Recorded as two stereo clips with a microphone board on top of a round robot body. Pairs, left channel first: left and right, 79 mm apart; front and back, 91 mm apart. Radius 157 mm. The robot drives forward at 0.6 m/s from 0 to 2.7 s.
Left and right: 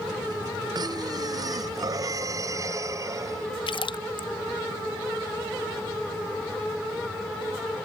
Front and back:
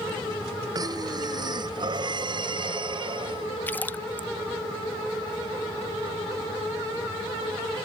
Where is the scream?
No scream in this recording.